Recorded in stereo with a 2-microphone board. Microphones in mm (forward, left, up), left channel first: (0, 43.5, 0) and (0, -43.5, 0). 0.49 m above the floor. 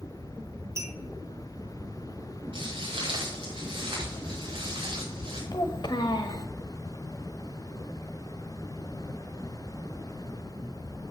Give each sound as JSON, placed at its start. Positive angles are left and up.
{"t": 0.8, "sound": "a clink", "side_deg": -35, "distance_m": 1.6}
{"t": 2.5, "sound": "footsteps", "side_deg": -85, "distance_m": 5.0}
{"t": 5.5, "sound": "a child speaking", "side_deg": 55, "distance_m": 1.1}